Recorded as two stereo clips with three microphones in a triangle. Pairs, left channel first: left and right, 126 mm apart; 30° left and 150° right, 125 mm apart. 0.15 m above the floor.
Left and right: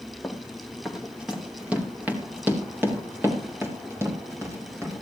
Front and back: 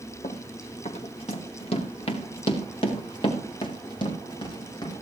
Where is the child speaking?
I don't hear a child speaking.